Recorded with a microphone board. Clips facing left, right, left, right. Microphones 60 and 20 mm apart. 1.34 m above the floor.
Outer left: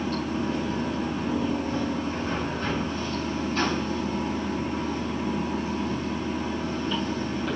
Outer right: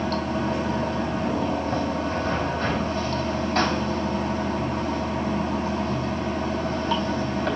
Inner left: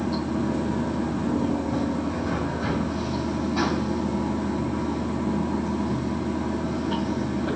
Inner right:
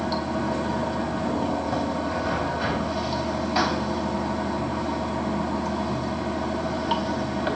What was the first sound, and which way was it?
Running water, 75° right (ahead or behind).